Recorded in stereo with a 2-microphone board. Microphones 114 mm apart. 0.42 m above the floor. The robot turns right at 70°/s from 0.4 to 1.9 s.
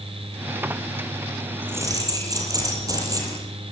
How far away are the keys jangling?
About 9 m.